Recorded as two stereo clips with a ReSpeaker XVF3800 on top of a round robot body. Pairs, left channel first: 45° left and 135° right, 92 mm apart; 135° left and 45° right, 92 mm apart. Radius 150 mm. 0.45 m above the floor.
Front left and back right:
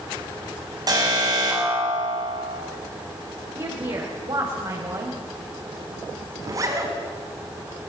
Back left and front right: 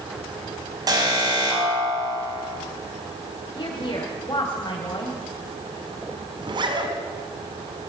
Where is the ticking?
I don't hear ticking.